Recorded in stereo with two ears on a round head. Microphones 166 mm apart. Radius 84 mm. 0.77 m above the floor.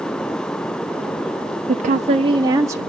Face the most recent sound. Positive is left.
turn(degrees=-15)  # may be behind; listen again after turning